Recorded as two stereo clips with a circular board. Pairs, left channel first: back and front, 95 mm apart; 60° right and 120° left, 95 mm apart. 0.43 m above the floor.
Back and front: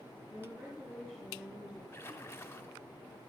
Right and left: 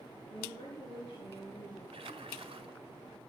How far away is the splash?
About 1.9 m.